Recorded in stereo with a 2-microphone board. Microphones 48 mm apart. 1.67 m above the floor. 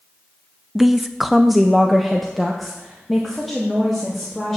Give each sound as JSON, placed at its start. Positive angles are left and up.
{"t": 0.8, "sound": "a woman speaking", "side_deg": -5, "distance_m": 0.5}